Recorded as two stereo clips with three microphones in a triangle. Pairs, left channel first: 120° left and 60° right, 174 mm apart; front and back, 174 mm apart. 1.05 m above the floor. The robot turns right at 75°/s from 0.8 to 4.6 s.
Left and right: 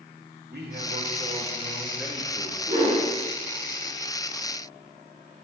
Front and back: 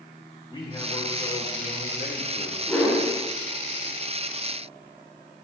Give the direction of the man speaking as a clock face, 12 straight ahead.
2 o'clock.